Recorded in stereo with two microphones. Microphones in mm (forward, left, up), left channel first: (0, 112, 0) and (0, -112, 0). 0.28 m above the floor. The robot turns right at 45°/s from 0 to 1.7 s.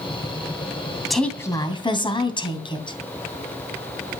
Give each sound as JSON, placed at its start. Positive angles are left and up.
{"t": 1.1, "sound": "a woman speaking", "side_deg": 0, "distance_m": 2.5}